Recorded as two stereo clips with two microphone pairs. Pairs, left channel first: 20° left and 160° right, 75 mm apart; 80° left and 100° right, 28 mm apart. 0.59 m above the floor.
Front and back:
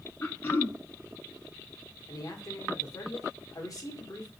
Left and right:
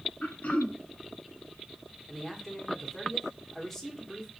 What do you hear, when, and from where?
0.2 s throat clearing: 75° left, 0.9 m
2.1 s a man speaking: 5° right, 1.3 m